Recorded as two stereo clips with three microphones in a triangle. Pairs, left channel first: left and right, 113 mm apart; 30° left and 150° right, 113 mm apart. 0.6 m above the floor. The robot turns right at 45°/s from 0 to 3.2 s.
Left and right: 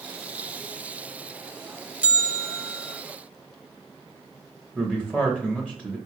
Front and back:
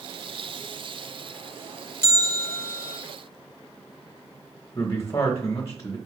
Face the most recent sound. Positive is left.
turn(degrees=-10)